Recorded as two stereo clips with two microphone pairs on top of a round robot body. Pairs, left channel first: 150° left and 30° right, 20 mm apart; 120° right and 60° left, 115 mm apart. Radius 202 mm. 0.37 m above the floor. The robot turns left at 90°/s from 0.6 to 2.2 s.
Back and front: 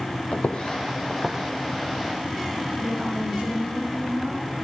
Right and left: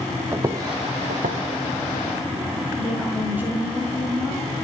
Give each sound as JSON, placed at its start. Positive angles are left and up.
{"t": 0.3, "sound": "footsteps", "azimuth_deg": 125, "distance_m": 1.4}
{"t": 2.8, "sound": "a woman speaking", "azimuth_deg": -15, "distance_m": 6.5}